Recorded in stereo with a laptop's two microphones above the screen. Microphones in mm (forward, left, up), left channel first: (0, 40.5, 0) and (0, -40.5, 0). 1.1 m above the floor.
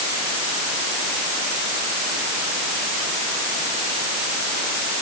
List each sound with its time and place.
Only background noise.